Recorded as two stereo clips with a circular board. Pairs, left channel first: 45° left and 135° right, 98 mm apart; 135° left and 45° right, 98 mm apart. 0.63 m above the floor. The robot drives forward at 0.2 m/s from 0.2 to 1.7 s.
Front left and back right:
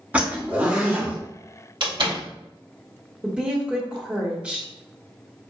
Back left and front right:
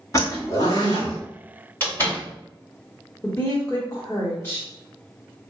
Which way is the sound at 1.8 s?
160° right.